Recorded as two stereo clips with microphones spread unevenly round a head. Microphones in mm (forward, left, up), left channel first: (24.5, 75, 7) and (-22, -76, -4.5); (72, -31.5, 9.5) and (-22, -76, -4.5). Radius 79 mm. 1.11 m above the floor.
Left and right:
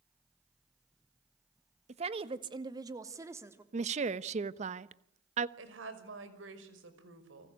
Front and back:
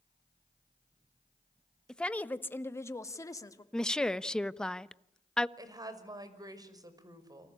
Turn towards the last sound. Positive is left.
turn(degrees=-100)